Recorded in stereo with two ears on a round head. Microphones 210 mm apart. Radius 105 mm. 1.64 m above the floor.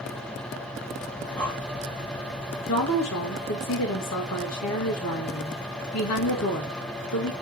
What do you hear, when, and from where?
1.2 s breathing: 5° left (ahead or behind), 1.7 m
2.7 s a woman speaking: 70° left (ahead or behind), 2.5 m